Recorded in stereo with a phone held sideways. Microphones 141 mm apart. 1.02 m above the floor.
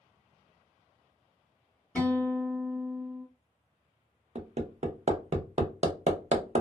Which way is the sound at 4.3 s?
55° right (ahead or behind).